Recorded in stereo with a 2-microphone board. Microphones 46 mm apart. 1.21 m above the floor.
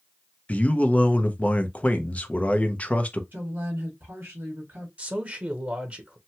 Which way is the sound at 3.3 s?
60° right (ahead or behind).